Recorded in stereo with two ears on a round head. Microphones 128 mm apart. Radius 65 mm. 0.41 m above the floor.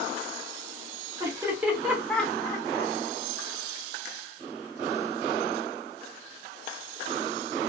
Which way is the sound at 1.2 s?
20° right (ahead or behind).